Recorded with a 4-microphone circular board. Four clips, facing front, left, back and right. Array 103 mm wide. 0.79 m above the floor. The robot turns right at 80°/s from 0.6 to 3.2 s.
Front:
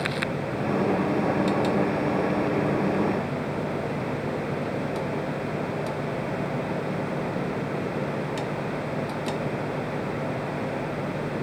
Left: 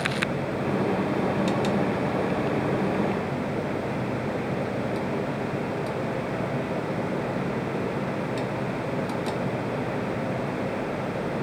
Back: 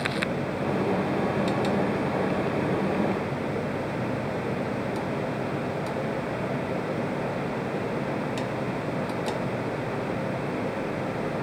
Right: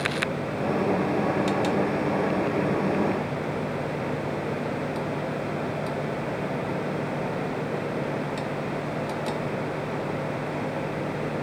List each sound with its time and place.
Only background noise.